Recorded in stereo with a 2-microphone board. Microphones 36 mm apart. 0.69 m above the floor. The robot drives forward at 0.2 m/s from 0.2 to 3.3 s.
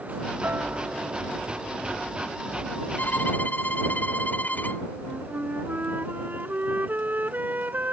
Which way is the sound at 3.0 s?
55° left (ahead or behind).